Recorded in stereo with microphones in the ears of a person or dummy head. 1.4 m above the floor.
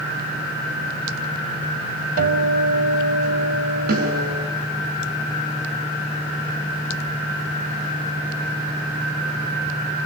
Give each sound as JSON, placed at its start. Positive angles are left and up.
{"t": 2.2, "sound": "a guitar", "side_deg": -50, "distance_m": 4.5}
{"t": 3.9, "sound": "a snare drum", "side_deg": -50, "distance_m": 9.5}